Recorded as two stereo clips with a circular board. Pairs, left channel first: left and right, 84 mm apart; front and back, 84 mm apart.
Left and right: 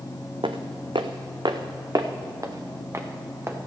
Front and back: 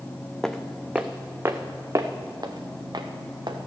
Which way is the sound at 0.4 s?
85° right.